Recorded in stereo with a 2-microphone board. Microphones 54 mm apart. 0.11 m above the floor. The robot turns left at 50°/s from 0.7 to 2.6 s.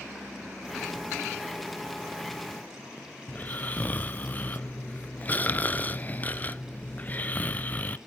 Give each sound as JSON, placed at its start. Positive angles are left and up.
{"t": 3.3, "sound": "snoring", "side_deg": 30, "distance_m": 0.6}